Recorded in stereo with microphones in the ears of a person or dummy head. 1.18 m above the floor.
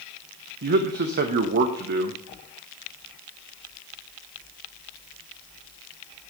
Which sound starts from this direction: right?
A man speaking, at 0.6 s.